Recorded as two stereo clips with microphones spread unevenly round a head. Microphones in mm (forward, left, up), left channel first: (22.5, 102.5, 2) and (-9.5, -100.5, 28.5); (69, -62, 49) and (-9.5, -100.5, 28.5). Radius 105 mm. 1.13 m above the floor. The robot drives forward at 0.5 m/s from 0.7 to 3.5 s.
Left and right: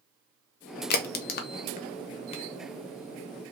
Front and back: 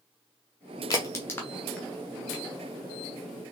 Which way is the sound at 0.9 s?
80° left.